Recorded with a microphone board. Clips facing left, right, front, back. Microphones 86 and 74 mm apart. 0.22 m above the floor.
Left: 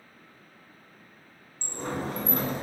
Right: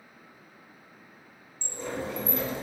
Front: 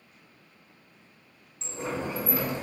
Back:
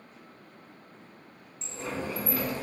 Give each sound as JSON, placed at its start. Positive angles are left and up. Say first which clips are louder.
{"t": 1.6, "sound": "a sliding door", "louder": "left 2 dB, front 2 dB", "azimuth_deg": 65, "distance_m": 0.7}